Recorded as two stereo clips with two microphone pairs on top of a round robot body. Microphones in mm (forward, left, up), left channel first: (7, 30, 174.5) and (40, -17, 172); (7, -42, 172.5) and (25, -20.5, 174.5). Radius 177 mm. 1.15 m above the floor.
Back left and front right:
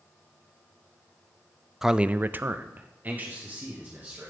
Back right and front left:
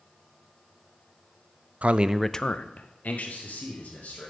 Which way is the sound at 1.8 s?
25° left.